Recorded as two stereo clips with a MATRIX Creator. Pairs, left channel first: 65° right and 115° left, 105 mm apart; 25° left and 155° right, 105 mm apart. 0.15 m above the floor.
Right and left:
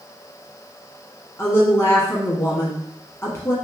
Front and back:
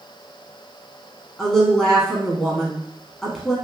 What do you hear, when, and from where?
1.4 s a woman speaking: 60° right, 1.1 m